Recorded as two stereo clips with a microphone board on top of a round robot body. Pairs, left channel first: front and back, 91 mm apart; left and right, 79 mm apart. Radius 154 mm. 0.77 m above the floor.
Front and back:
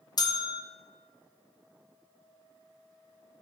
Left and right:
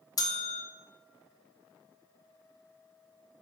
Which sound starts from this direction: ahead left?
A bell, at 0.2 s.